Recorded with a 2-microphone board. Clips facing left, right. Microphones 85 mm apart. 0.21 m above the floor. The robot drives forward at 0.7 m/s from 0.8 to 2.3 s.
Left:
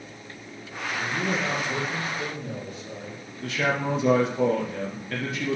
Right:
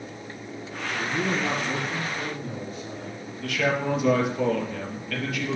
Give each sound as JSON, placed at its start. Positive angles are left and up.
{"t": 0.9, "sound": "a man speaking", "side_deg": -5, "distance_m": 5.5}
{"t": 3.4, "sound": "a man speaking", "side_deg": 30, "distance_m": 3.5}